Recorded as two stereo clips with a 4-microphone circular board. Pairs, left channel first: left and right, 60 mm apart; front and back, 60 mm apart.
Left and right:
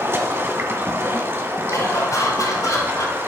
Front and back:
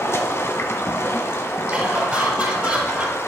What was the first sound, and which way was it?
Running water, 45° right.